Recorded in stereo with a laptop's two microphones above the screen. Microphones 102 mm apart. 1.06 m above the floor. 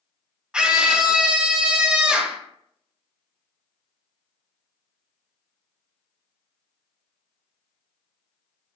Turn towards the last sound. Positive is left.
turn(degrees=-10)  # may be behind; listen again after turning